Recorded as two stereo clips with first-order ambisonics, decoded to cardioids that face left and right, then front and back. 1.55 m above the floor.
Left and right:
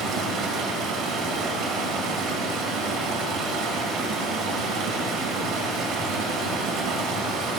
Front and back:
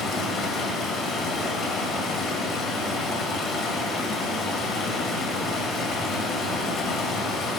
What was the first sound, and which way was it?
Running water, 60° right.